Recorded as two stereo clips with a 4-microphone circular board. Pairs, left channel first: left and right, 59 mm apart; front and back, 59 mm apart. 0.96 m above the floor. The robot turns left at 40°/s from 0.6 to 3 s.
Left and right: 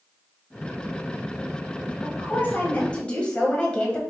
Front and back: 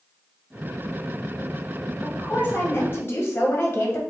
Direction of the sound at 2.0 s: 65° left.